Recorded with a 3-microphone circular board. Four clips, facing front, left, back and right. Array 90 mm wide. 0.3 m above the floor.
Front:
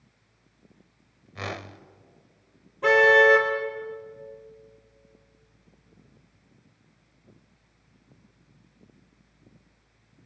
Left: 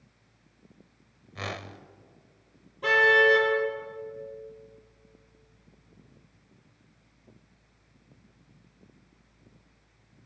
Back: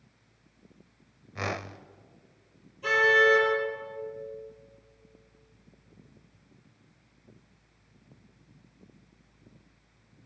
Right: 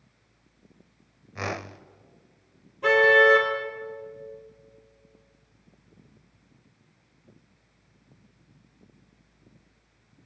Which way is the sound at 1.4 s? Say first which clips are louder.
Right 4 dB, back 2 dB; 120° right.